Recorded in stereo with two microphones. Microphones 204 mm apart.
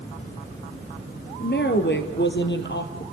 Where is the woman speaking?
55° left (ahead or behind), 2 m.